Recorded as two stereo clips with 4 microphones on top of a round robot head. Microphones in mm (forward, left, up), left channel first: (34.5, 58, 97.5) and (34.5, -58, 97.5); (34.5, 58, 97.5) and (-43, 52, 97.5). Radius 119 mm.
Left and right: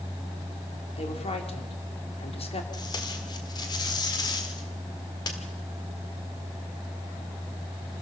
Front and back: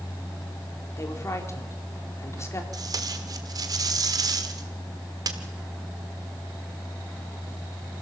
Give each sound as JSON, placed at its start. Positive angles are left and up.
{"t": 1.0, "sound": "a woman speaking", "azimuth_deg": 55, "distance_m": 3.5}
{"t": 2.7, "sound": "tape being pulled", "azimuth_deg": 150, "distance_m": 1.6}